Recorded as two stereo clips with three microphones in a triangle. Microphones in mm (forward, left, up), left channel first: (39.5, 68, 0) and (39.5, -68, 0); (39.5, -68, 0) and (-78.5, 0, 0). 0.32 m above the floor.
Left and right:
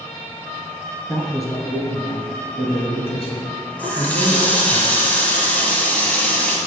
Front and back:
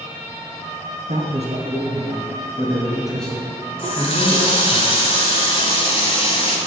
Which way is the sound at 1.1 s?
160° left.